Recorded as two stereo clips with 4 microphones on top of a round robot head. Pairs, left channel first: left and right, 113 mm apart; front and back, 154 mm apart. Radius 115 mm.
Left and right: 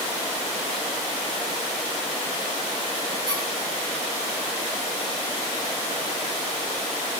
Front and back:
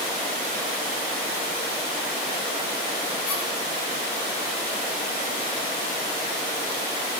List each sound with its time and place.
3.3 s a squeak: 40° right, 9.5 m